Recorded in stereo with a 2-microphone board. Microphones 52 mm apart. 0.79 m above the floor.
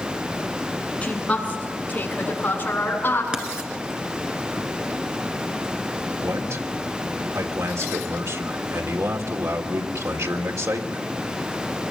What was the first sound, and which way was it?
A woman speaking, 25° left (ahead or behind).